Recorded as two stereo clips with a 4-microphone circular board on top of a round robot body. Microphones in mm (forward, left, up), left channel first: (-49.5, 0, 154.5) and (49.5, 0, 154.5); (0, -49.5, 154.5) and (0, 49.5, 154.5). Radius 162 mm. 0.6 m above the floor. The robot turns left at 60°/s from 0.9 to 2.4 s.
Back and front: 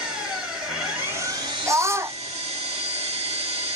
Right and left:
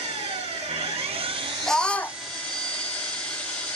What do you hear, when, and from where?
0.0 s an engine running: 80° left, 2 m; by 3.8 s 10° right, 2 m
1.7 s a scream: 5° right, 0.7 m; by 2.2 s 40° right, 0.7 m